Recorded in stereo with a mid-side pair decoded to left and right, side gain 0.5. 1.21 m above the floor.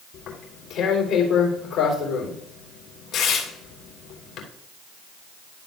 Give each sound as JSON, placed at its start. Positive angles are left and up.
{"t": 0.1, "sound": "tearing paper", "azimuth_deg": 60, "distance_m": 3.0}